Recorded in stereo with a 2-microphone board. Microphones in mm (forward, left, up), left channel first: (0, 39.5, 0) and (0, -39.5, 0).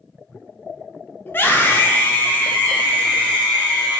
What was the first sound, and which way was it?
A scream, 25° left (ahead or behind).